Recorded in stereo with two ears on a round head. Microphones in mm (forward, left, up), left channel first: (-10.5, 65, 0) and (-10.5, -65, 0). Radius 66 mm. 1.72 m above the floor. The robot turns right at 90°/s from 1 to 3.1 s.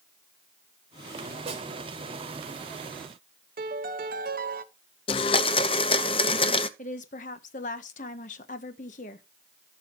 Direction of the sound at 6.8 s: 55° left (ahead or behind).